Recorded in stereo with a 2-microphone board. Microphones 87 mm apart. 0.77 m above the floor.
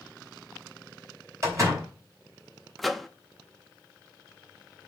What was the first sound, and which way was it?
A door slam, 35° right (ahead or behind).